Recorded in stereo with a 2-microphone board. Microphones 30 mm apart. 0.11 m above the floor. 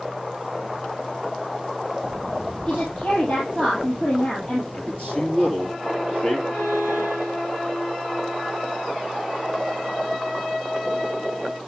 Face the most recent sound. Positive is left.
turn(degrees=65)  # may be behind; listen again after turning